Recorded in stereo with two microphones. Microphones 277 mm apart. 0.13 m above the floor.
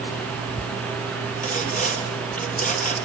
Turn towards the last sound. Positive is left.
turn(degrees=30)  # may be behind; listen again after turning